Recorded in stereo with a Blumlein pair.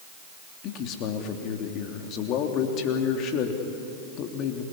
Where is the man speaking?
35° left, 3 m.